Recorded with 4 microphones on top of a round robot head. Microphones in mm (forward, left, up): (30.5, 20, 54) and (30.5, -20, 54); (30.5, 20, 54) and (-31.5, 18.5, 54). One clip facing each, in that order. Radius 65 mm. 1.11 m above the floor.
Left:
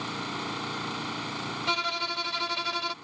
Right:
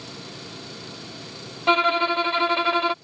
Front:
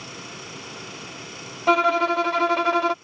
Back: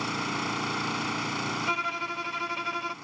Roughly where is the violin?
Ahead right.